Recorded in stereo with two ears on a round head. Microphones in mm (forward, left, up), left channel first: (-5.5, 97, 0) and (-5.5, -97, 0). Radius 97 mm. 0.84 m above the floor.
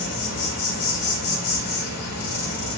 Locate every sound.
0.0 s an insect: 65° left (ahead or behind), 1.1 m